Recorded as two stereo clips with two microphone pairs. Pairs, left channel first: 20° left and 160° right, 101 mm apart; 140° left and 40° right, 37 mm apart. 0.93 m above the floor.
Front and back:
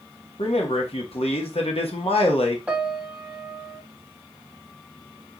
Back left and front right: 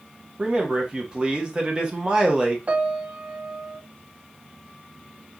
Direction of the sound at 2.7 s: 85° right.